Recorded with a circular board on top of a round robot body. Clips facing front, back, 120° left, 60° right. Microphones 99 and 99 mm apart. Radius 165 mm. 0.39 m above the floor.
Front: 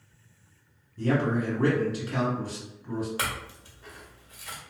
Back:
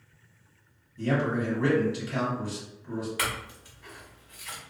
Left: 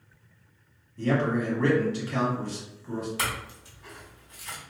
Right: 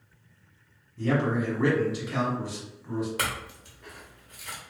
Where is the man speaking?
20° left, 1.7 m.